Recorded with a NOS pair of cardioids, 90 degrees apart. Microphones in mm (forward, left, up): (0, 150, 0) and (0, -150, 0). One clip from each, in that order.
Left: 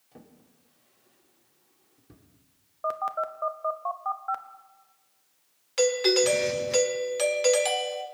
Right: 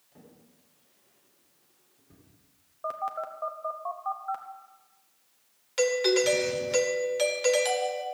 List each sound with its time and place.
0.1 s a drawer: 65° left, 3 m
2.8 s a phone buzzing: 25° left, 0.9 m
5.8 s a doorbell: 20° left, 2 m